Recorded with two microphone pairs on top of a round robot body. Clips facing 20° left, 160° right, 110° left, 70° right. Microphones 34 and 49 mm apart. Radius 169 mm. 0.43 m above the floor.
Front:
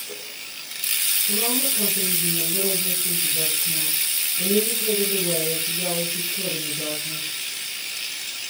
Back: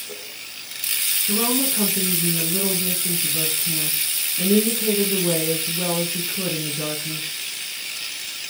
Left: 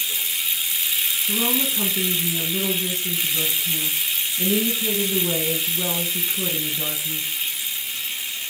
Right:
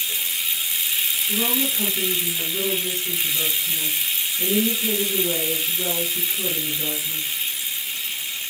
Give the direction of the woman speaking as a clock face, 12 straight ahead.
6 o'clock.